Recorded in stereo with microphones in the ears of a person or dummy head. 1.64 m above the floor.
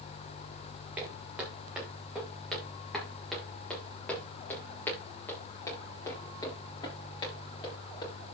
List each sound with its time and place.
1.0 s footsteps: 5° right (ahead or behind), 6 m; by 8.3 s 25° left (ahead or behind), 7 m